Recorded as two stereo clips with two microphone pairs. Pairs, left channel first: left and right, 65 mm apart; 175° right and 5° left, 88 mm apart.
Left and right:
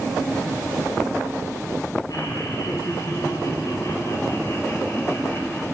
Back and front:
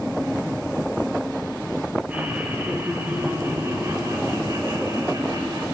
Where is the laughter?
80° left, 4.5 m; by 5.6 s 40° left, 4.5 m.